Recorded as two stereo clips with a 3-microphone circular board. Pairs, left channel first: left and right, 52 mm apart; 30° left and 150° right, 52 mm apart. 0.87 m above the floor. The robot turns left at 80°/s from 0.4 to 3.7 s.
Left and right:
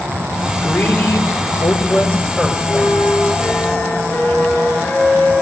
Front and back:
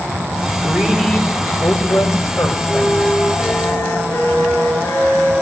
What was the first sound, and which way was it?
A woman speaking, 150° left.